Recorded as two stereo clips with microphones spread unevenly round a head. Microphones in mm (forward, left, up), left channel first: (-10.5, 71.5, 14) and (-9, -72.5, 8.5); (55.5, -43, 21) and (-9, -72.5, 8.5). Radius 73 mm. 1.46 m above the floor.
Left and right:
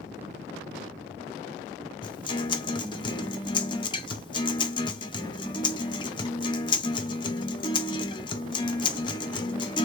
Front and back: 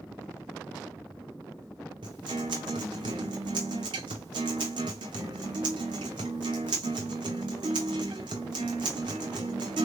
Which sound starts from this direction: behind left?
A guitar, at 2.0 s.